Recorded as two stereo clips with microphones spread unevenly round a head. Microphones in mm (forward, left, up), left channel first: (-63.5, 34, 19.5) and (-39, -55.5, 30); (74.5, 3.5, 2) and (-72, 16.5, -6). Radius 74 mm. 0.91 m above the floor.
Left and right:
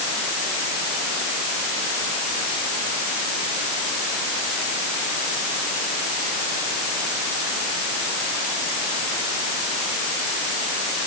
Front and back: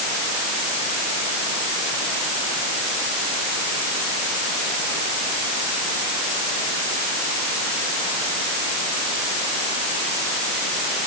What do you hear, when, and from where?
Only background noise.